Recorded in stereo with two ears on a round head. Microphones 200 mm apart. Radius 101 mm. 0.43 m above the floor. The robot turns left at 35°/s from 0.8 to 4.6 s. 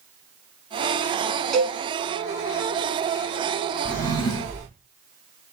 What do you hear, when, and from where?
1.5 s a cowbell: 5° left (ahead or behind), 1.0 m; by 1.8 s 5° right (ahead or behind), 1.0 m
3.9 s a drawer: 5° left (ahead or behind), 2 m; by 4.7 s 30° left (ahead or behind), 2 m